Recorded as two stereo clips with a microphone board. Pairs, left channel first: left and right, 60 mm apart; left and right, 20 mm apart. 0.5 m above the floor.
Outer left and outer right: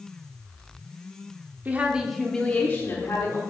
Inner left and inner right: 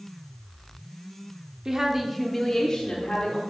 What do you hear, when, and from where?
1.6 s a woman speaking: 30° right (ahead or behind), 1.1 m; by 3.4 s 55° left (ahead or behind), 1.6 m